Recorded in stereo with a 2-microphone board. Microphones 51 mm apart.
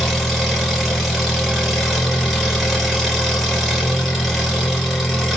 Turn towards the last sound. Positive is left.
turn(degrees=-5)  # may be behind; listen again after turning